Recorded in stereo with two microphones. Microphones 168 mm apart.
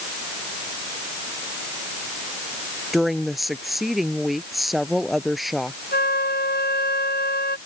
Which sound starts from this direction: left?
A flute, at 5.9 s.